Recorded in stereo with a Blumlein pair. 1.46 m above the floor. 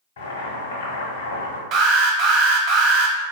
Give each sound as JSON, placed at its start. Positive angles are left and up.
{"t": 0.2, "sound": "boiling", "azimuth_deg": 65, "distance_m": 1.0}
{"t": 1.7, "sound": "an alarm", "azimuth_deg": -35, "distance_m": 0.6}